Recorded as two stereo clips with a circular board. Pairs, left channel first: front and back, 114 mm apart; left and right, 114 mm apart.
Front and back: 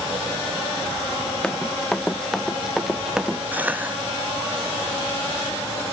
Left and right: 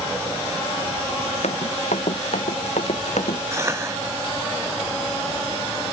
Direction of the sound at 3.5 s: 120° right.